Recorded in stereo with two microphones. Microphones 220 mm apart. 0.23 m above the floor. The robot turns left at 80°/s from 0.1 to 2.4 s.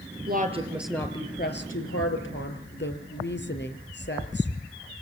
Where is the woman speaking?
45° right (ahead or behind), 4.5 m; by 4.5 s 55° left (ahead or behind), 4.5 m.